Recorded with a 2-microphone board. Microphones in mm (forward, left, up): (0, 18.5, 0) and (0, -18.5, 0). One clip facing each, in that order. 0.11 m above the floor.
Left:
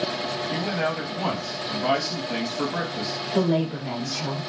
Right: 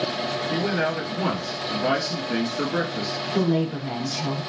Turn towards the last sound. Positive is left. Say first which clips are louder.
# even
turn(degrees=10)  # may be behind; listen again after turning